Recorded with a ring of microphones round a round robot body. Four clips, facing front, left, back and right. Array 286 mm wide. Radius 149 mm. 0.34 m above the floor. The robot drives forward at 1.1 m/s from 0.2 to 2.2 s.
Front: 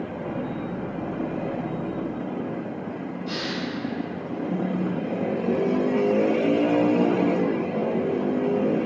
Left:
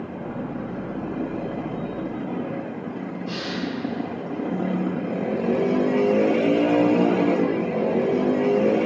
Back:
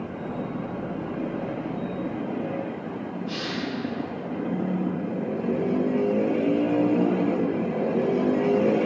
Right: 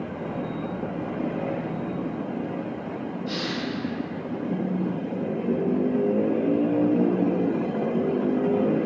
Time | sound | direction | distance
3.3 | a hiss | 10° left | 1.9 m